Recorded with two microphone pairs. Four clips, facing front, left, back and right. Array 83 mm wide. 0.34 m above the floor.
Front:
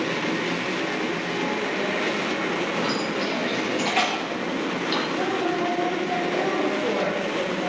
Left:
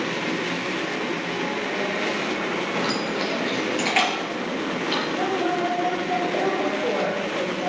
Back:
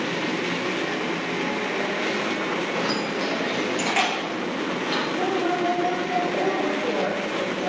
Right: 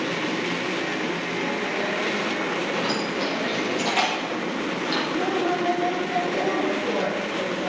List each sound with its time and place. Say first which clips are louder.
2.7 s keys jangling: even, even; 85° left, 3.5 m; by 5.0 s 115° left, 5.5 m
5.1 s a woman speaking: even, back 1 dB; 80° left, 1.8 m